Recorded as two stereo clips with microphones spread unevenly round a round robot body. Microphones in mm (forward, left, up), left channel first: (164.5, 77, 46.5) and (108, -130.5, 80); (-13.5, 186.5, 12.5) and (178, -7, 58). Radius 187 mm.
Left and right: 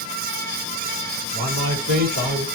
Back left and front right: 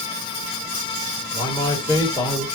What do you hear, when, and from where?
1.3 s a man speaking: 150° right, 1.8 m